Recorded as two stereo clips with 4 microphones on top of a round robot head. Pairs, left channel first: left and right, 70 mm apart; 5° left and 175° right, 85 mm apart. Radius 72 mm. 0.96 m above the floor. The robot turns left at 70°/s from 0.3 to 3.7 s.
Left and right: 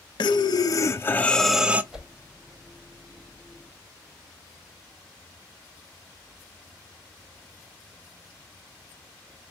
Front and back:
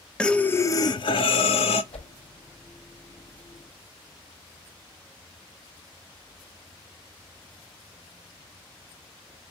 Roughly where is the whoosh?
Ahead.